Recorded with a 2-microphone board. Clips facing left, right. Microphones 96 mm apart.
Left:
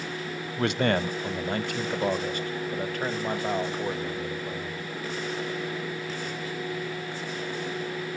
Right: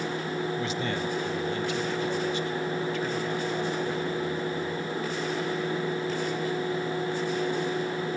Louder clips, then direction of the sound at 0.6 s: Left 5 dB; 65° left (ahead or behind).